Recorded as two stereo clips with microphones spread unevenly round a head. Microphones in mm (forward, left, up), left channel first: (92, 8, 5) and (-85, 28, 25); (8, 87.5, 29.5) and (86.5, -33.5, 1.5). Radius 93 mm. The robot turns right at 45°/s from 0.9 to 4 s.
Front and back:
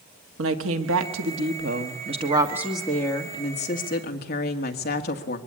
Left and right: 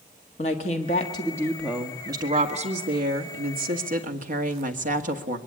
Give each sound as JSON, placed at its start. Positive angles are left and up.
{"t": 0.4, "sound": "a woman speaking", "azimuth_deg": 180, "distance_m": 1.6}